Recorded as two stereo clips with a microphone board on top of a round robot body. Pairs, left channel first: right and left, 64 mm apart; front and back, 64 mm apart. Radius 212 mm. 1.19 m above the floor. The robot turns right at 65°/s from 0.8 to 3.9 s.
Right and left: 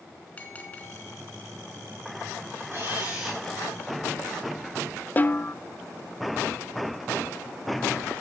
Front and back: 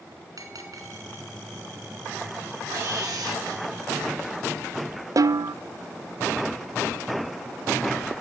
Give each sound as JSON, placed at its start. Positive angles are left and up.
{"t": 0.4, "sound": "a bell", "azimuth_deg": -155, "distance_m": 3.5}
{"t": 2.7, "sound": "a camera shutter", "azimuth_deg": 135, "distance_m": 4.0}
{"t": 5.2, "sound": "a snare drum", "azimuth_deg": -155, "distance_m": 0.6}